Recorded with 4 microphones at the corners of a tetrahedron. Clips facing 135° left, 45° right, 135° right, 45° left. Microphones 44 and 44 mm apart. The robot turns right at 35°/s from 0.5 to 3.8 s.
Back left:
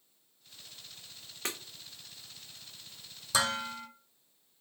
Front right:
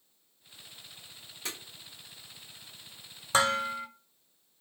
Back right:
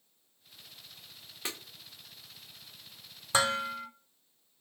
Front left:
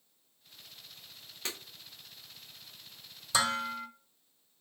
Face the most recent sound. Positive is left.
turn(degrees=-70)